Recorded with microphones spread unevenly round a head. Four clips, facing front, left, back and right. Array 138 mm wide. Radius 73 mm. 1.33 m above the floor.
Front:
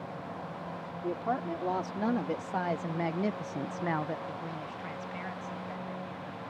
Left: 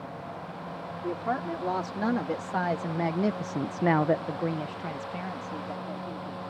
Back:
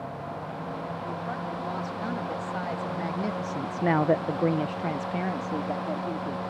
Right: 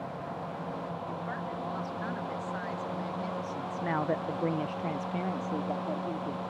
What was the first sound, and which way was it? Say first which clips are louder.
A woman speaking: left 6 dB, front 6 dB; 50° left.